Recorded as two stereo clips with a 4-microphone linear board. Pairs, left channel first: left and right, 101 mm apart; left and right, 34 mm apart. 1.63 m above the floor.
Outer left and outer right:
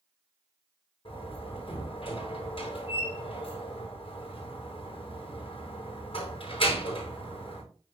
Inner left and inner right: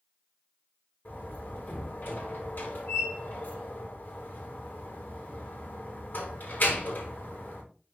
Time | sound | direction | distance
1.1 | a door slam | 65° left (ahead or behind) | 6 m